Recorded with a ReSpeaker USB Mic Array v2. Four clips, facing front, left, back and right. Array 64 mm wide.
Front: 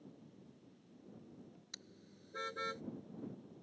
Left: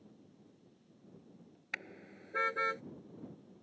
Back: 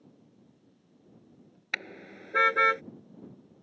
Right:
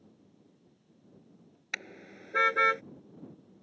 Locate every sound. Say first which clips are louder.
1.7 s a car horn: right 4 dB, back 22 dB; 170° right; by 2.8 s 145° right